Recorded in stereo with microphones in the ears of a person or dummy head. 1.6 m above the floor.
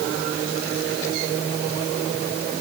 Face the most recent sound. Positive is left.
No sound to turn to.